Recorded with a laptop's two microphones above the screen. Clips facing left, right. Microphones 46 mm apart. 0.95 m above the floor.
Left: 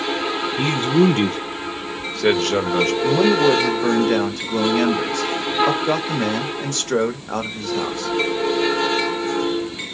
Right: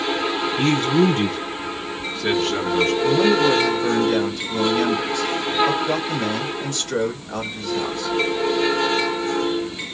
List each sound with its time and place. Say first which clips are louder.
0.6 s a man speaking: left 1 dB; 15° left (ahead or behind), 0.7 m; by 2.9 s 60° left (ahead or behind), 1.6 m
3.0 s a man speaking: left 2 dB; 55° left (ahead or behind), 1.3 m